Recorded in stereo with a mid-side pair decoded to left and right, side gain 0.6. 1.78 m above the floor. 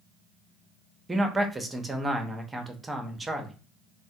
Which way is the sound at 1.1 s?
15° right.